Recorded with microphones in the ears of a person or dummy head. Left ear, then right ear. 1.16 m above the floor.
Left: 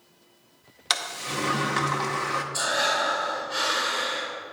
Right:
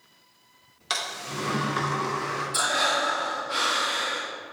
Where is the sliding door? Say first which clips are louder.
Left 2 dB; 30° left (ahead or behind), 0.6 m.